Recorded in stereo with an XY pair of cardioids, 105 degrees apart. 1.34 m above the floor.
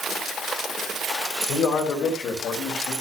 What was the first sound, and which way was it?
A man speaking, 60° left.